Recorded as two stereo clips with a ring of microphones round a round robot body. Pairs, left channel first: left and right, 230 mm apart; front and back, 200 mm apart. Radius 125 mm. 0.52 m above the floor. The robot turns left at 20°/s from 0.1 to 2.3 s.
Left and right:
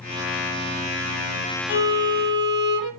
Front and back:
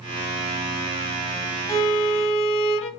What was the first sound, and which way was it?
A violin, 75° left.